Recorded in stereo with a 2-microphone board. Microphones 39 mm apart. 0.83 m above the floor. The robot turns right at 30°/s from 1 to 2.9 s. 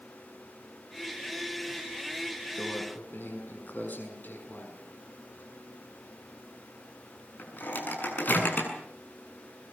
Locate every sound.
2.6 s a microwave: 65° left (ahead or behind), 7 m; by 8.7 s 55° left (ahead or behind), 7 m